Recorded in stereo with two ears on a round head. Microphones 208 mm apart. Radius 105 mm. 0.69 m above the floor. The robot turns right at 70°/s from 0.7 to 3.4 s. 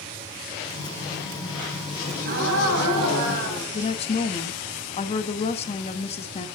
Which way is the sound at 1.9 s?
155° right.